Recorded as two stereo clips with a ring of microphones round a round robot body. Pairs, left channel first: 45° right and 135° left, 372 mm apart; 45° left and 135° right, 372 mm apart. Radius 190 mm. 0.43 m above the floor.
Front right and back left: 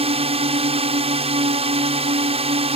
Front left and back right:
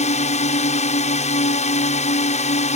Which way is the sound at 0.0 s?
85° left.